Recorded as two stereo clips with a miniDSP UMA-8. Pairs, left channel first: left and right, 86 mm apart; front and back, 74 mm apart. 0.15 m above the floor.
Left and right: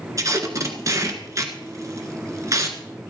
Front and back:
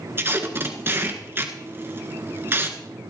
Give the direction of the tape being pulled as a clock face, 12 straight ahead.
4 o'clock.